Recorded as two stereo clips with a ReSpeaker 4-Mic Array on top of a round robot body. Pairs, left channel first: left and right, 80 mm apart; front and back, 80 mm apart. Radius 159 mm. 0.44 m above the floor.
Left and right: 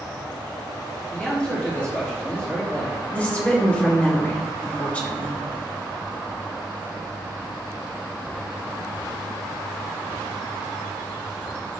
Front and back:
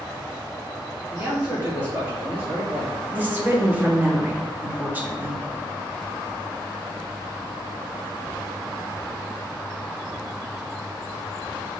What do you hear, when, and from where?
1.1 s a man speaking: 135° left, 1.6 m
3.1 s a woman speaking: 140° left, 1.4 m